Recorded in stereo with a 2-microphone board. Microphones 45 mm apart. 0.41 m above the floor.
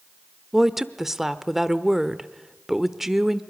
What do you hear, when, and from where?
0.5 s a woman speaking: 5° right (ahead or behind), 0.9 m